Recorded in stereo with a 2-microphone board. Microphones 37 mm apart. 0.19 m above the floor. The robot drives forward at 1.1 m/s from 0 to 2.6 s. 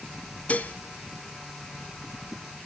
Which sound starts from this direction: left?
Dishes clattering, at 0.5 s.